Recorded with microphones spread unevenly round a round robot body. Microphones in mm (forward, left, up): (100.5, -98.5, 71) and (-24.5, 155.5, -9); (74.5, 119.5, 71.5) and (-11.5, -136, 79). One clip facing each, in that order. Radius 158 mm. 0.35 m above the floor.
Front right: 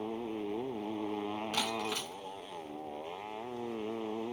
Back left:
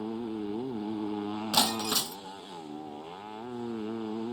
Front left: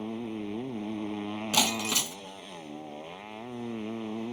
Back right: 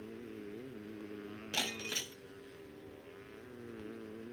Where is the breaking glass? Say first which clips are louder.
Back left 5 dB, front left 10 dB; 100° left.